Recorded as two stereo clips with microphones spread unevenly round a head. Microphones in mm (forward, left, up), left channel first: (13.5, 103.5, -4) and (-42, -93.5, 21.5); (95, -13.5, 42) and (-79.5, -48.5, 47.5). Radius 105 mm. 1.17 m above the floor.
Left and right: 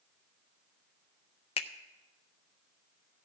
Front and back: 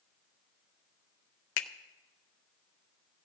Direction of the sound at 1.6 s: 10° left.